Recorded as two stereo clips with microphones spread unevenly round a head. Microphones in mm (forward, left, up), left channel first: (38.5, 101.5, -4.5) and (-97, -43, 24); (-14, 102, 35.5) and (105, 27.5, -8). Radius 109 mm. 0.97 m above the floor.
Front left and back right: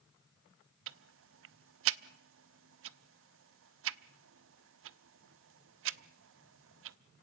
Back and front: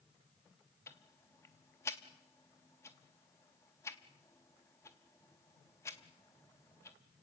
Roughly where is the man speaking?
No man speaking in this recording.